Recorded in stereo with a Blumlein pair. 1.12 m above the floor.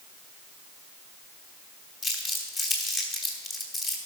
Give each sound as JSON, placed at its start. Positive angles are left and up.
{"t": 2.0, "sound": "crumpling", "azimuth_deg": 25, "distance_m": 3.0}